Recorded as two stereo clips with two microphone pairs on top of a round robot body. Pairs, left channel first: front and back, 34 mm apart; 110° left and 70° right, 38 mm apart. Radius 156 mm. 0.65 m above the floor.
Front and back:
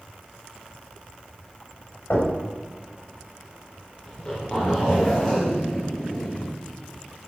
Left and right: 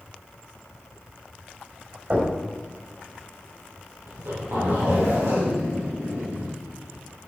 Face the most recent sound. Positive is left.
turn(degrees=-65)